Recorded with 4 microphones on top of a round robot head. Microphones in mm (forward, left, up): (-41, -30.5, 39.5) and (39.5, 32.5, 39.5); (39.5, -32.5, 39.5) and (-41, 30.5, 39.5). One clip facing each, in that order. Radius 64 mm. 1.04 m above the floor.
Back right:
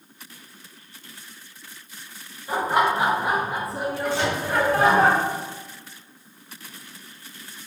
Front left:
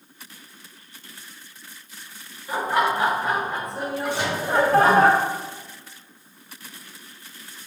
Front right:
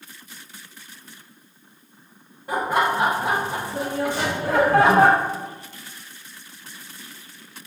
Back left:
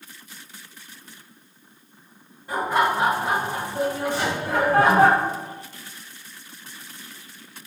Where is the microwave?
35° right, 2.0 m.